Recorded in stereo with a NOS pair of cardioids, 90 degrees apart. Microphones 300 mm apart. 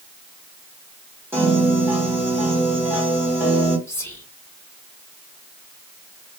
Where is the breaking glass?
No breaking glass in this recording.